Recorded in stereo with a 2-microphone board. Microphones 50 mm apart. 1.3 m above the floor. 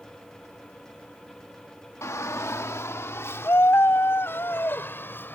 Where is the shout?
90° left; by 5.3 s 45° left (ahead or behind).